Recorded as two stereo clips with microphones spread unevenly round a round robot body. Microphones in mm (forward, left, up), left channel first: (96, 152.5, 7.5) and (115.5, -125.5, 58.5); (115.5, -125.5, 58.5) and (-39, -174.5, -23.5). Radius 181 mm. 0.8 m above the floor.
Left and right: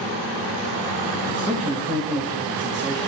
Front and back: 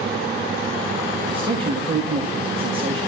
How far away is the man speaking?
About 1.6 m.